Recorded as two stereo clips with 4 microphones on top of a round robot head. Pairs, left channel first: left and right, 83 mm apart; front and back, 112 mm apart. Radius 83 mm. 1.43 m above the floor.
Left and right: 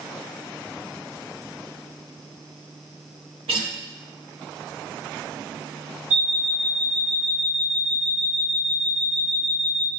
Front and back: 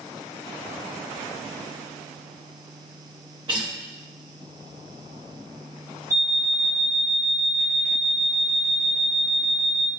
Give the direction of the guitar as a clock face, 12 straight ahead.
4 o'clock.